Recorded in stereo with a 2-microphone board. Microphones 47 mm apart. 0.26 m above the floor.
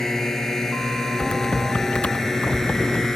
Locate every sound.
0.0 s a drone: 10° left (ahead or behind)
1.2 s typing on a keyboard: 25° left (ahead or behind)